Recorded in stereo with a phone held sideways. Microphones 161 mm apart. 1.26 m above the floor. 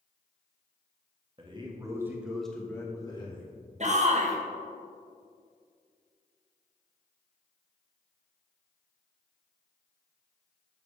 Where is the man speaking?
35° right (ahead or behind), 1.2 m; by 3.5 s 35° left (ahead or behind), 1.2 m.